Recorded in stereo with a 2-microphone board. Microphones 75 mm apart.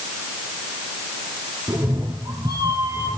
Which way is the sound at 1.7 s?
55° right (ahead or behind).